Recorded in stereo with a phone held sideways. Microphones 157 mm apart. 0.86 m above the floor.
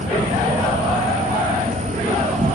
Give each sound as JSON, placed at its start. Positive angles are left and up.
{"t": 0.0, "sound": "an insect", "side_deg": -50, "distance_m": 1.2}